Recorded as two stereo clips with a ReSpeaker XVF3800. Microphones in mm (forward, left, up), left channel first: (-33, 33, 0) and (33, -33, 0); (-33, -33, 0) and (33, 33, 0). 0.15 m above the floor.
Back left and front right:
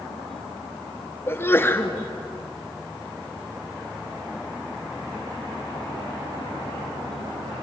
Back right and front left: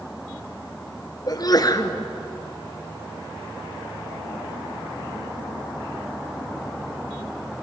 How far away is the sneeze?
About 2 m.